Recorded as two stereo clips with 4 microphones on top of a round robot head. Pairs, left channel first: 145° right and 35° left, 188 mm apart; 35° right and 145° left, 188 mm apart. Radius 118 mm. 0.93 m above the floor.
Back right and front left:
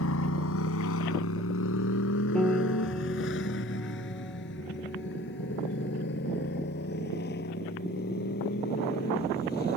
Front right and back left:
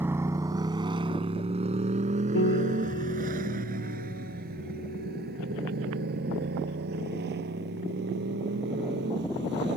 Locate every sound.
0.0 s a motorcycle: 135° right; by 9.8 s 175° left
2.4 s a piano: 60° right